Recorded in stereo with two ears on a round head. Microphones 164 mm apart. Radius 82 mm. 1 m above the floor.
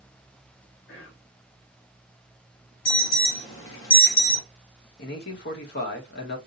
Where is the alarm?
75° left (ahead or behind), 1.2 m.